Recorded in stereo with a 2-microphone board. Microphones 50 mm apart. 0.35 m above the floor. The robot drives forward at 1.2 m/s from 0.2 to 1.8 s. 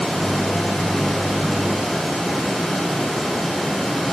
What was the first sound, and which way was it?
Only background noise.